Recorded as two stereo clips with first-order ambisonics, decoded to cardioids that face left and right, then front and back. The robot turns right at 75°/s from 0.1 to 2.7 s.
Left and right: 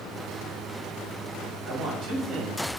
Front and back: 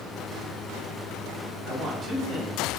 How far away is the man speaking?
About 0.8 m.